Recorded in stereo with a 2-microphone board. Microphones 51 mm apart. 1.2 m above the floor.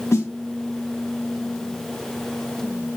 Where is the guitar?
No guitar in this recording.